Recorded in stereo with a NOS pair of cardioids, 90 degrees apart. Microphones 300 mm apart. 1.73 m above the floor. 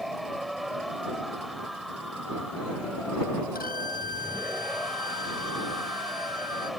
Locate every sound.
0.0 s a machine running: straight ahead
3.5 s a violin: 30° left